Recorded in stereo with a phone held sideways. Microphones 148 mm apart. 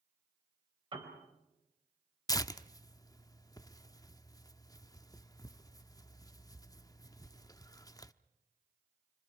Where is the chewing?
No chewing in this recording.